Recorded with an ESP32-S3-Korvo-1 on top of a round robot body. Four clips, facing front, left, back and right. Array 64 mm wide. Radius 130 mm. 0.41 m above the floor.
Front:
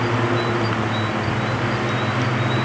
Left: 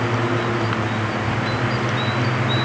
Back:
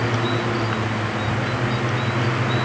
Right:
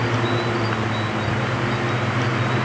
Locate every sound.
Only background noise.